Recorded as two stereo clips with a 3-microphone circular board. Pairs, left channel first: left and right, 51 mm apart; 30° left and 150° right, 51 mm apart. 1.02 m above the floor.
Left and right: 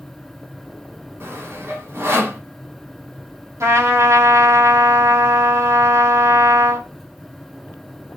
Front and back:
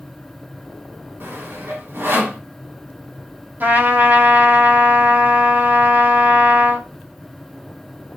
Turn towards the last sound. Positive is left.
turn(degrees=-100)